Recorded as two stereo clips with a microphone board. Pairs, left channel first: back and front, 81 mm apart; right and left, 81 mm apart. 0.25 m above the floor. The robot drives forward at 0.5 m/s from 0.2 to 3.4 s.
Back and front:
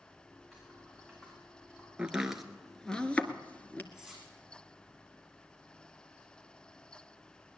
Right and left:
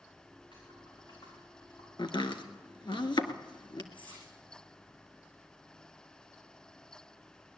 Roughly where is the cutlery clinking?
Right.